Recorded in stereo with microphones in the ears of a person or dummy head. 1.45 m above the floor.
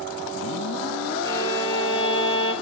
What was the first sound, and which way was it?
A violin, 65° right (ahead or behind).